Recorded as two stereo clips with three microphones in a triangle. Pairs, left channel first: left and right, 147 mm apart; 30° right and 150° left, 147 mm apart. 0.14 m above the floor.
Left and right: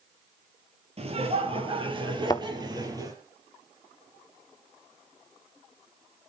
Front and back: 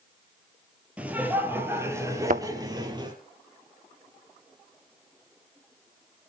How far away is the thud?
About 0.7 m.